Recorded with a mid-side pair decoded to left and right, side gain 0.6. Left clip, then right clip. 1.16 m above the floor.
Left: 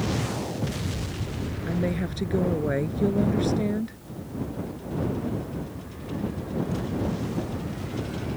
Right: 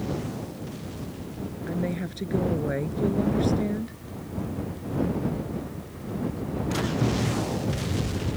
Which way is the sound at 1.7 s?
20° left.